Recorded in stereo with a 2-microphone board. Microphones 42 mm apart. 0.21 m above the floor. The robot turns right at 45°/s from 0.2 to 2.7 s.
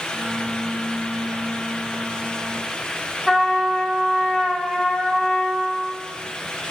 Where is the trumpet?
Centre (ahead or behind), 0.9 m.